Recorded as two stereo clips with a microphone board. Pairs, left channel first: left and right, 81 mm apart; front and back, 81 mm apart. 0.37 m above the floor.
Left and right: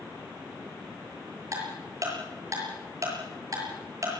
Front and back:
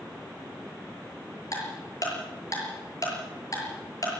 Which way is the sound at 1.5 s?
45° right.